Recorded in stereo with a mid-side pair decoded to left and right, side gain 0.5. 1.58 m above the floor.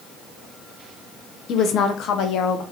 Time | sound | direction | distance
1.5 | a woman speaking | 60° left | 1.0 m